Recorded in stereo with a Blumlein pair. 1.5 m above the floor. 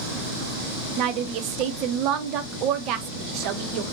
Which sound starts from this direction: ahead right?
A woman speaking, at 1.0 s.